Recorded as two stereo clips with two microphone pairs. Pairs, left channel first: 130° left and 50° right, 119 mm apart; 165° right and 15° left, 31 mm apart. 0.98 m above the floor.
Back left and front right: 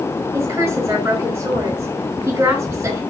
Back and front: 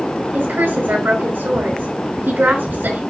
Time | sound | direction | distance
0.3 | a woman speaking | 20° left | 5 m